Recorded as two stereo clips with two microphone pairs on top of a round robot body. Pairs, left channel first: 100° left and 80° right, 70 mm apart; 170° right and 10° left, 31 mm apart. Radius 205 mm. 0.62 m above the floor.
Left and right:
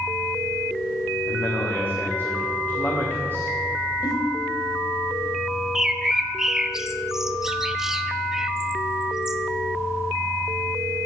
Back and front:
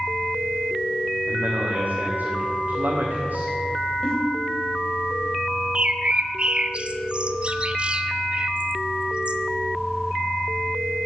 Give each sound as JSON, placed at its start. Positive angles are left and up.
{"t": 1.3, "sound": "a man speaking", "azimuth_deg": 35, "distance_m": 1.7}
{"t": 4.0, "sound": "a giggle", "azimuth_deg": 125, "distance_m": 1.7}
{"t": 5.8, "sound": "a bird", "azimuth_deg": 0, "distance_m": 0.9}